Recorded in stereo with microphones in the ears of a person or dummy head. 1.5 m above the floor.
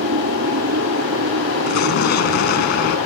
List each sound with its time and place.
0.0 s an aircraft: 60° right (ahead or behind); by 3.1 s 70° right (ahead or behind)
1.7 s an explosion: 65° left (ahead or behind)